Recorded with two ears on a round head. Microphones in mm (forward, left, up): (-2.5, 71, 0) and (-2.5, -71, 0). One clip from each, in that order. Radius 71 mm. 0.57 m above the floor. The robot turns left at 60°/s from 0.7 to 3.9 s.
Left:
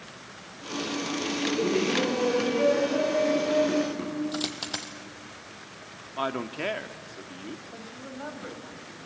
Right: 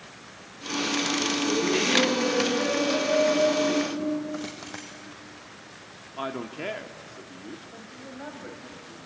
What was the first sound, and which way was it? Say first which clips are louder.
Laughter: left 2 dB; 90° right.